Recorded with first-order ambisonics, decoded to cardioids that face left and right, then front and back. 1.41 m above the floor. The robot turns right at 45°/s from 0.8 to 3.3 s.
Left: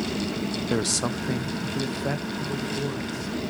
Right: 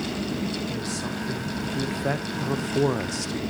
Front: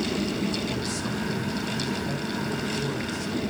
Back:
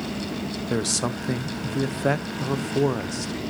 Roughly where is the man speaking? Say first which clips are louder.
Left 5 dB, back 4 dB; behind left.